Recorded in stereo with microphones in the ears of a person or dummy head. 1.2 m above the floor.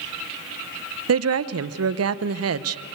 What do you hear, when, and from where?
1.1 s a woman speaking: 75° right (ahead or behind), 0.7 m